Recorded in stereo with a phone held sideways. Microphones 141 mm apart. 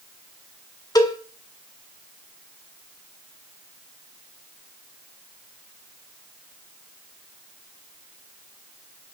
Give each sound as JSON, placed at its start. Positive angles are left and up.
{"t": 0.9, "sound": "a cowbell", "side_deg": 25, "distance_m": 1.7}